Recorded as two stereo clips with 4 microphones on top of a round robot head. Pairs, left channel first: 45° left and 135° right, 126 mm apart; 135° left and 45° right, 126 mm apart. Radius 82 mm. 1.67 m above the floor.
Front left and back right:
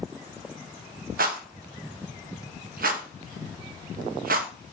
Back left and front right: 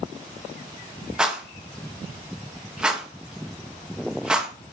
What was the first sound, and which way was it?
A rattle, 130° right.